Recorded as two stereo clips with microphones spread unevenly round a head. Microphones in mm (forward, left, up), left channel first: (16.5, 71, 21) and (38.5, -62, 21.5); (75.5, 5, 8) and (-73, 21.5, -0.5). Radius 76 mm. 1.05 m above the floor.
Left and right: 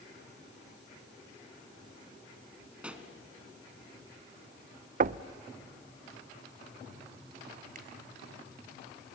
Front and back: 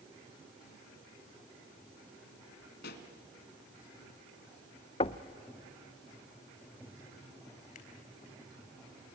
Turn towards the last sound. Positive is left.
turn(degrees=-55)